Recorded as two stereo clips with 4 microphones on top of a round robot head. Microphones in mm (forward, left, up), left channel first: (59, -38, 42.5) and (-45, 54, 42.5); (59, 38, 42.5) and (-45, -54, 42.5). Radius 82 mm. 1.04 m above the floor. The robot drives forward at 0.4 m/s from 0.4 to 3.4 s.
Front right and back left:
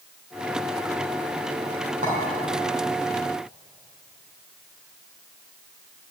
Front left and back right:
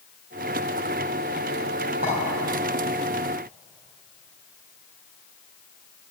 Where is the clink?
175° left, 3 m.